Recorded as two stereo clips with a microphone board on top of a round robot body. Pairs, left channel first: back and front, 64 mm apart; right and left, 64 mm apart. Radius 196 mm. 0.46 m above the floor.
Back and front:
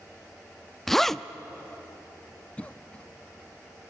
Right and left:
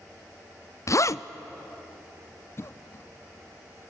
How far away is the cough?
About 1.0 m.